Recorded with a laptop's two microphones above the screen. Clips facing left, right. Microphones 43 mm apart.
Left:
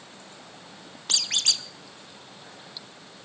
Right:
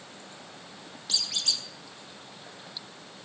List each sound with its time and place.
1.1 s a squeak: 65° left (ahead or behind), 0.7 m